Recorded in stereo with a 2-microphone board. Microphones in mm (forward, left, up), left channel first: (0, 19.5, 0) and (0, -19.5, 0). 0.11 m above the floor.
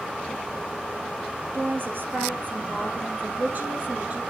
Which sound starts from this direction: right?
A woman speaking, at 1.5 s.